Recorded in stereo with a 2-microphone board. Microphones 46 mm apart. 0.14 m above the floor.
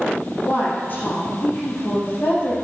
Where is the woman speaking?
45° left (ahead or behind), 3 m.